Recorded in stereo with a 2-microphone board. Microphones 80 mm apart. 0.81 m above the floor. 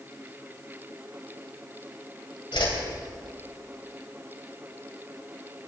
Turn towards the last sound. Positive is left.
turn(degrees=85)